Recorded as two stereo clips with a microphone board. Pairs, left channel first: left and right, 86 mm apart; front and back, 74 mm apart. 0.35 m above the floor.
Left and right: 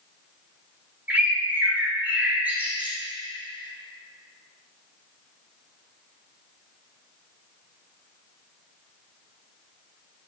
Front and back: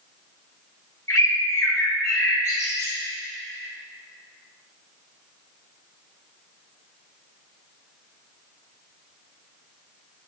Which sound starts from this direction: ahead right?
A bird, at 1.1 s.